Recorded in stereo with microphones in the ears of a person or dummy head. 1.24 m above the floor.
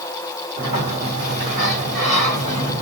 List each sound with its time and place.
0.6 s a sliding door: 30° right (ahead or behind), 1.4 m